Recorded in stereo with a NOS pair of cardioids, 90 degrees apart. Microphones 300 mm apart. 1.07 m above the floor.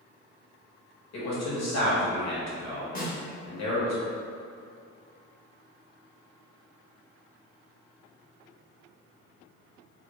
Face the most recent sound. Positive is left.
turn(degrees=30)